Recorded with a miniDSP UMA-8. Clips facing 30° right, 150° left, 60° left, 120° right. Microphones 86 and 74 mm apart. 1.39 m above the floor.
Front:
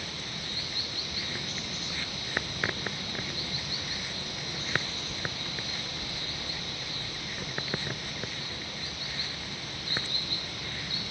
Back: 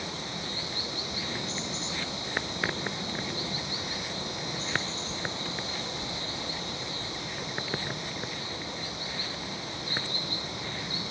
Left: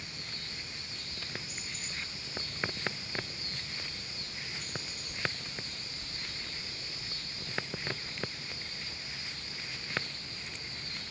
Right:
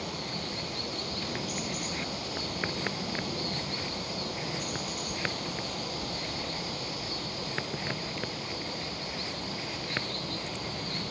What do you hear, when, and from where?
0.0 s running water: 145° right